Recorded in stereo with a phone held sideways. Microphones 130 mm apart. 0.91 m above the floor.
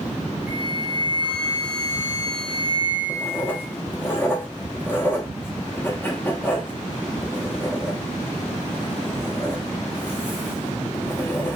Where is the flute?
15° right (ahead or behind), 1.6 m.